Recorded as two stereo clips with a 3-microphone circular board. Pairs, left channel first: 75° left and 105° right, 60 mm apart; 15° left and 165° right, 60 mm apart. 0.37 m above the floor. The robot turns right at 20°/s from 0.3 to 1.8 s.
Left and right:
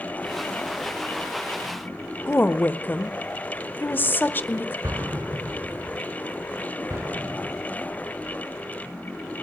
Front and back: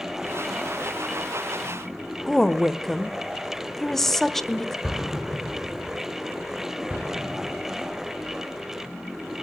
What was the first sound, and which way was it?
A woman speaking, 95° left.